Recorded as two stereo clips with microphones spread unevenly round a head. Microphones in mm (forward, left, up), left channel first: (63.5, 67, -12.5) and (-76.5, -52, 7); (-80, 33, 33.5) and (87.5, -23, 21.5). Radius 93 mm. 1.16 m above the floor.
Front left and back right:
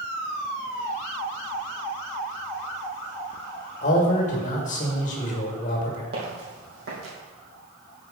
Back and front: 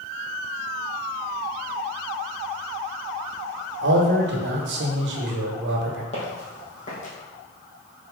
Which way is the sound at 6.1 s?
150° right.